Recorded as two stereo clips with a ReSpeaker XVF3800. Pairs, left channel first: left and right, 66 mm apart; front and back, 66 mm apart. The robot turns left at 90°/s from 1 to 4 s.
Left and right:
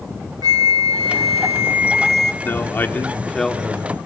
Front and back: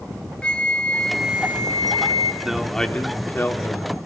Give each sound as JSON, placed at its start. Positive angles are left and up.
{"t": 0.4, "sound": "a flute", "azimuth_deg": -75, "distance_m": 0.7}
{"t": 2.4, "sound": "a man speaking", "azimuth_deg": 105, "distance_m": 1.4}